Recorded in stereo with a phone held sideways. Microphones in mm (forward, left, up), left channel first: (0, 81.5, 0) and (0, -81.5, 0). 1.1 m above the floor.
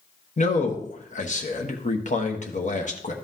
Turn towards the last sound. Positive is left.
turn(degrees=50)  # may be behind; listen again after turning